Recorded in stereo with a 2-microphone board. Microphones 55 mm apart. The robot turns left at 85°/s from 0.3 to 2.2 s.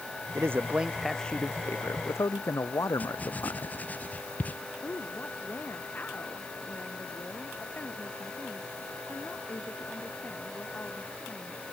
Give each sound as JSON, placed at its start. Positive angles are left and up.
{"t": 0.3, "sound": "a man speaking", "azimuth_deg": -120}
{"t": 3.0, "sound": "writing", "side_deg": 30}
{"t": 4.8, "sound": "a woman speaking", "side_deg": 35}